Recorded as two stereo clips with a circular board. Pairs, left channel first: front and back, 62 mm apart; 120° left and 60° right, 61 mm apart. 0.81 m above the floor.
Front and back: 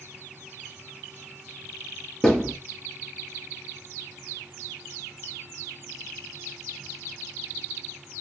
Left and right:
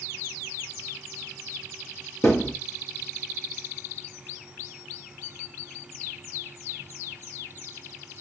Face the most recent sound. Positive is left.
turn(degrees=80)